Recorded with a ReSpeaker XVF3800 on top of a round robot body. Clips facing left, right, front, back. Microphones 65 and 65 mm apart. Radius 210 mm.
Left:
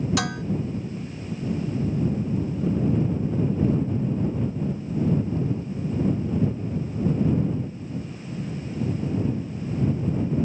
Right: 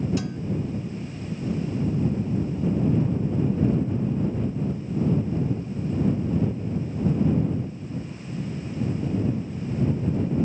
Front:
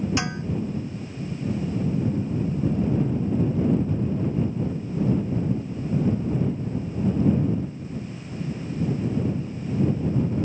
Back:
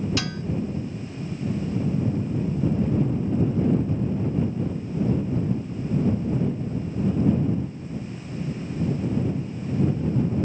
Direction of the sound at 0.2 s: 70° left.